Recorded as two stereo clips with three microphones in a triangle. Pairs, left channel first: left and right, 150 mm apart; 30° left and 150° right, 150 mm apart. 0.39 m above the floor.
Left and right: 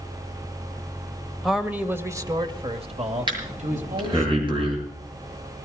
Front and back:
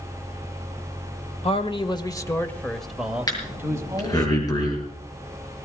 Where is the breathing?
35° right, 6.5 m.